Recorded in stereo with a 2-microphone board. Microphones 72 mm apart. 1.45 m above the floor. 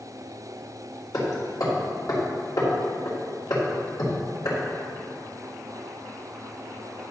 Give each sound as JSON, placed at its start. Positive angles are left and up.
{"t": 1.1, "sound": "hammering", "side_deg": 60, "distance_m": 2.5}